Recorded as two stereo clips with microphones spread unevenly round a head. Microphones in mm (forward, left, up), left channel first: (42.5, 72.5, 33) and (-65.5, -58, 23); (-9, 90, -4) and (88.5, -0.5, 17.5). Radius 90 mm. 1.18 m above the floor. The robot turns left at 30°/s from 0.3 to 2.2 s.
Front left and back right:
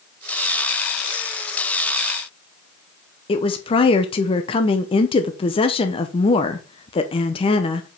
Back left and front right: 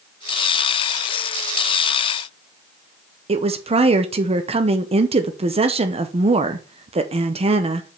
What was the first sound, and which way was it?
A woman speaking, 5° right.